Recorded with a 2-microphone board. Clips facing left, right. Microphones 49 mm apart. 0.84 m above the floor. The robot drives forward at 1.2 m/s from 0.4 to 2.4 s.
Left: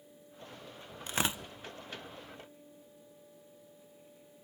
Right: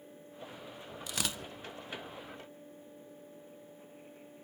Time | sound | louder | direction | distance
1.1 | tearing paper | left 5 dB | 35° left (ahead or behind) | 0.6 m